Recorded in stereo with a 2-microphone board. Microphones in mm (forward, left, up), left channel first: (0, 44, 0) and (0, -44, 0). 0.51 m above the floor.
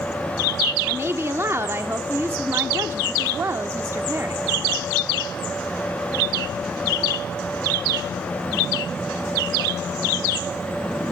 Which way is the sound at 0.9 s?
30° right (ahead or behind).